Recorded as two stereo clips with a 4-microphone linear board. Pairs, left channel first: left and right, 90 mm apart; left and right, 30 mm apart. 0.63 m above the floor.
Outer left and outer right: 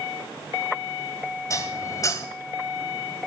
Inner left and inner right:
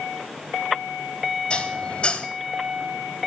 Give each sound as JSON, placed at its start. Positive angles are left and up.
{"t": 1.5, "sound": "dishes clattering", "side_deg": 40, "distance_m": 2.5}